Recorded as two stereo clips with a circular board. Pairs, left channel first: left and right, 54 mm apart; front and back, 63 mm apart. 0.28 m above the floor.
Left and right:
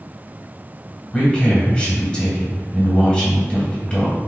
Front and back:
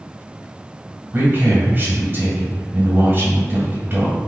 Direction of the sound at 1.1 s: 155° left.